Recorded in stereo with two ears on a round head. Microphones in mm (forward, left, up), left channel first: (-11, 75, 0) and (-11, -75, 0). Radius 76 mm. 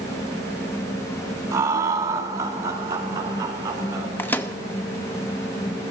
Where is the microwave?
10° left (ahead or behind), 0.7 m.